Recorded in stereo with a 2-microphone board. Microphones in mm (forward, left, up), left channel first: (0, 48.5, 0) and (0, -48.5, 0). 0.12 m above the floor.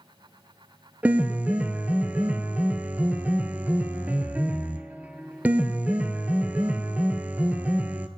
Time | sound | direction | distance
1.0 | a piano | 15° right (ahead or behind) | 0.7 m